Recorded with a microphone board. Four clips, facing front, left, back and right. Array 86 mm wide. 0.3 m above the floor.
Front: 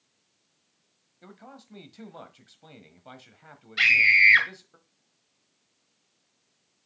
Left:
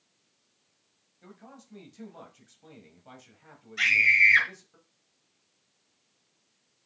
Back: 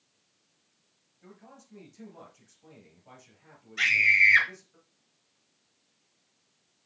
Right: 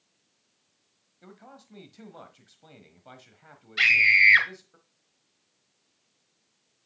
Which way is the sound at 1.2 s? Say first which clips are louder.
Right 1 dB, front 4 dB; 25° right.